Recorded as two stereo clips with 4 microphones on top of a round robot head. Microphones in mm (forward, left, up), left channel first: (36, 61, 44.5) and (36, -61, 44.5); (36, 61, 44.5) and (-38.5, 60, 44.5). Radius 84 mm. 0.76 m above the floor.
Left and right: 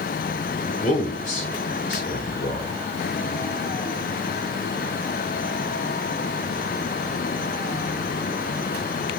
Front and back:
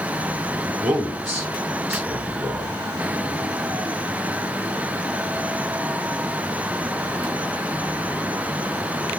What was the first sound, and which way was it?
A man speaking, 120° left.